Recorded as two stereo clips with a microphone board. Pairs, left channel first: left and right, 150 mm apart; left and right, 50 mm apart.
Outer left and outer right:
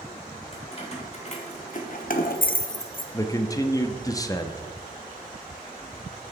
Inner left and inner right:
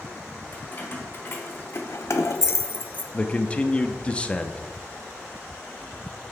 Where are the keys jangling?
40° left (ahead or behind), 1.9 m; by 3.0 s 30° left (ahead or behind), 0.6 m.